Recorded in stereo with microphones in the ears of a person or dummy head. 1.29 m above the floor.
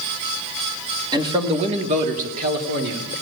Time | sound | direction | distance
1.1 | a man speaking | 20° right (ahead or behind) | 1.8 m